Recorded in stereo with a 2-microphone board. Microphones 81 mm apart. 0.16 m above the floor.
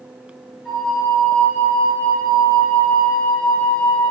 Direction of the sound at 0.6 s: Centre (ahead or behind).